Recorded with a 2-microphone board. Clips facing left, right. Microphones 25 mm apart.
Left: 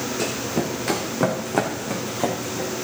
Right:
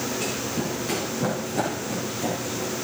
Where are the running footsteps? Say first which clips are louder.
Left 3 dB; 70° left (ahead or behind), 2.5 m.